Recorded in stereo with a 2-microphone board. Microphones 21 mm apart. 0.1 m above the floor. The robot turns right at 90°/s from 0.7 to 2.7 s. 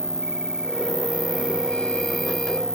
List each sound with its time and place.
0.0 s an insect: 135° right; by 2.8 s 45° left